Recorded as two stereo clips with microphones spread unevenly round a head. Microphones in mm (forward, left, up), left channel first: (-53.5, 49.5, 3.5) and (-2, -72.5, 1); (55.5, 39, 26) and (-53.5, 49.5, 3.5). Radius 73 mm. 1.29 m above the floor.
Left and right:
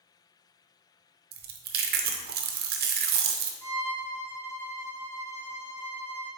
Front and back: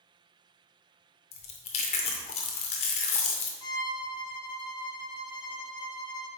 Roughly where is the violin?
Ahead left.